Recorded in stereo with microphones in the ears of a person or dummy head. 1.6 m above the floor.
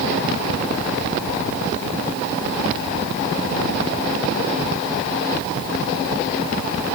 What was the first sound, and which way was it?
Only background noise.